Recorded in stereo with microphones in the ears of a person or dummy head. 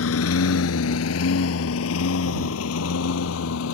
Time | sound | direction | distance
0.0 | a lawn mower | 75° left (ahead or behind) | ?